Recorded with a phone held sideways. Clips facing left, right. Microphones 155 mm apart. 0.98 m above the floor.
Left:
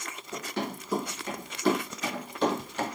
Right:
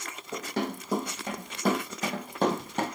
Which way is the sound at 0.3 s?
40° right (ahead or behind).